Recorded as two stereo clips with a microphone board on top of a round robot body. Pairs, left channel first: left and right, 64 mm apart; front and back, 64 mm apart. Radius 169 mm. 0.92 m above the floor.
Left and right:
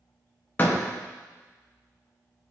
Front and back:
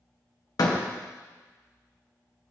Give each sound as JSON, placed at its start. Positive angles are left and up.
{"t": 0.6, "sound": "a door slam", "azimuth_deg": 25, "distance_m": 0.8}